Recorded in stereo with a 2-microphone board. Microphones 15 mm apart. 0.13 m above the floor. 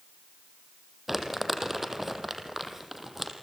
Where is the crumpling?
10° right (ahead or behind), 3.5 m.